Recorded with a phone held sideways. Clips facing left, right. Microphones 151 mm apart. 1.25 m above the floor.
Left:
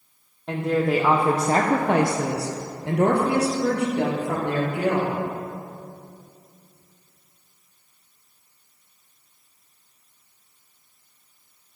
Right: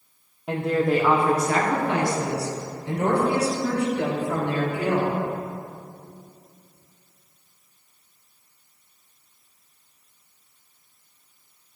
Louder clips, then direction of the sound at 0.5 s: Even; 10° right (ahead or behind).